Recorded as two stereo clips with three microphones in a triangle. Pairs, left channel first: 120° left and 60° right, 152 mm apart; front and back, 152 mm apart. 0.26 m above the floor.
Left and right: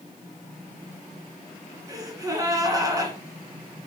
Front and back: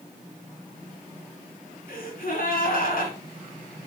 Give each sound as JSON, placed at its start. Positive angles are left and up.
{"t": 1.9, "sound": "a gasp", "azimuth_deg": 5, "distance_m": 1.8}